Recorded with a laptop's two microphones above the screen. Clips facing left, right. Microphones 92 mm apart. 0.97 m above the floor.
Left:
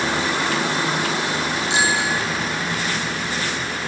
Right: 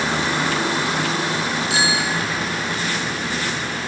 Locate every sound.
1.7 s a bicycle bell: 20° left (ahead or behind), 5.5 m